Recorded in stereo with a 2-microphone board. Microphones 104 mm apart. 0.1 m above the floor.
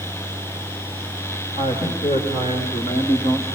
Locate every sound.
1.6 s a man speaking: 65° left (ahead or behind), 6.5 m